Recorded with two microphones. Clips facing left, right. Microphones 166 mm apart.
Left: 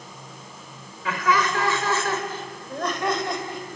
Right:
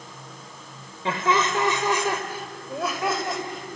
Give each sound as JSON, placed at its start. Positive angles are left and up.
{"t": 1.1, "sound": "laughter", "side_deg": -30, "distance_m": 3.0}